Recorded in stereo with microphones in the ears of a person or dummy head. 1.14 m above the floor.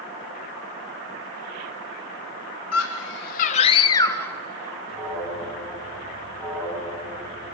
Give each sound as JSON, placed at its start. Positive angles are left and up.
{"t": 2.7, "sound": "a scream", "side_deg": 75, "distance_m": 0.8}
{"t": 4.9, "sound": "an alarm", "side_deg": -5, "distance_m": 9.5}